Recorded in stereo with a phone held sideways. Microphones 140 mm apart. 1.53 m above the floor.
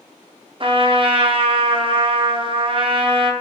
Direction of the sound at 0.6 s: 40° right (ahead or behind).